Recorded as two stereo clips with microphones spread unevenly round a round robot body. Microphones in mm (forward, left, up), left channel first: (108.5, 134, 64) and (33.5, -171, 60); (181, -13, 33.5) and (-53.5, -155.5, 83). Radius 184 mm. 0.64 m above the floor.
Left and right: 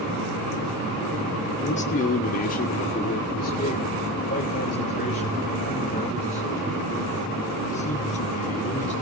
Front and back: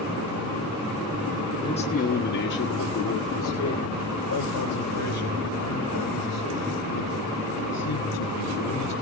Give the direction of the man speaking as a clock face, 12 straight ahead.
11 o'clock.